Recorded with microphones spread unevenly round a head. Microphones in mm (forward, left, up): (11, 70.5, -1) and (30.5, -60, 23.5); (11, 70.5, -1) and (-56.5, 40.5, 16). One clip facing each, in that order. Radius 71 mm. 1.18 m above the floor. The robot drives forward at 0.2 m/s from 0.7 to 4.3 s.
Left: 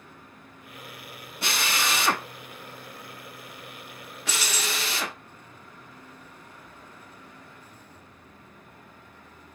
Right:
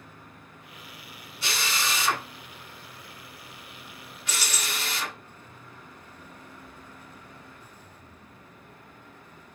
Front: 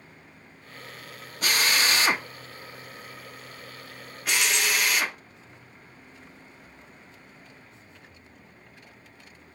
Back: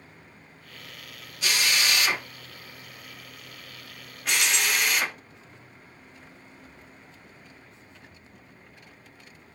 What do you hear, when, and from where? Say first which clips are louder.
1.4 s a drill: left 2 dB, front 2 dB; 65° left, 0.8 m; by 5.2 s 125° left, 0.8 m
4.3 s keys jangling: left 3 dB, even; 130° right, 0.7 m